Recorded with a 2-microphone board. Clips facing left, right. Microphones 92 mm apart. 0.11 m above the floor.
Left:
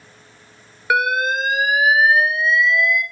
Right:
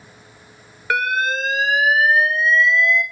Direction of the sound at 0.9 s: 15° left (ahead or behind).